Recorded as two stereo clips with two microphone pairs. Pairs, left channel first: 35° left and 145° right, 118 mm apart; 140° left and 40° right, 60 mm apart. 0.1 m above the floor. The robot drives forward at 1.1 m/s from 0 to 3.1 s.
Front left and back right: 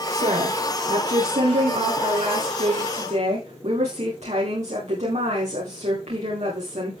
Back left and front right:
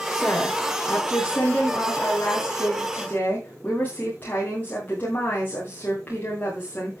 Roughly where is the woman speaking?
Behind right.